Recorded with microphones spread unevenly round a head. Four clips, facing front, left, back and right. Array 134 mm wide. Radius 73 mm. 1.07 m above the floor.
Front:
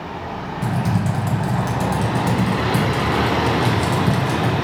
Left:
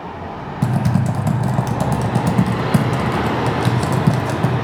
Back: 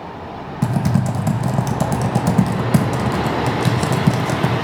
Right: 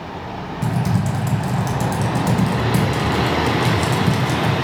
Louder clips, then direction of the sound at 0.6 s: Left 3 dB, back 3 dB; 150° left.